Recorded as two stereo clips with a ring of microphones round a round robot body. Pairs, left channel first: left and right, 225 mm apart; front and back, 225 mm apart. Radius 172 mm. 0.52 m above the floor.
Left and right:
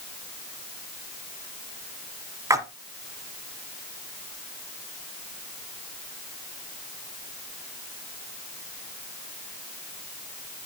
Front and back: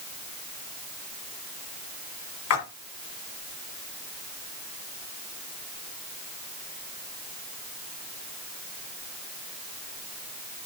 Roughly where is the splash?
Ahead.